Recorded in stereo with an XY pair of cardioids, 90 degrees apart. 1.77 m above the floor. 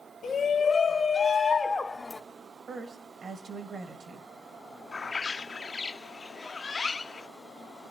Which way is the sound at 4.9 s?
35° left.